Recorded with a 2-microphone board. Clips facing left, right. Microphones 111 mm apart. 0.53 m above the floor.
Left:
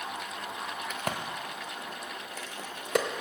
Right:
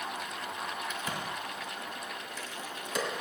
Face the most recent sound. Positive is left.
turn(degrees=70)  # may be behind; listen again after turning